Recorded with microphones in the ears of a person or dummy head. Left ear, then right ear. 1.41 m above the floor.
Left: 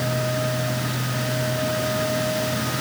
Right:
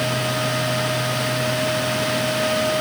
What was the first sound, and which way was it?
Only background noise.